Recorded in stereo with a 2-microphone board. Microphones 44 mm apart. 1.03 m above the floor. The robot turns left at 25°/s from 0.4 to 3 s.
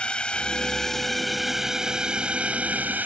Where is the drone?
25° left; by 3.1 s 40° right.